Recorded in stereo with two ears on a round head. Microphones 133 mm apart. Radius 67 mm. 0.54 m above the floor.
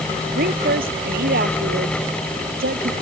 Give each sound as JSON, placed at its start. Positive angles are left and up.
{"t": 0.3, "sound": "a woman speaking", "side_deg": -70}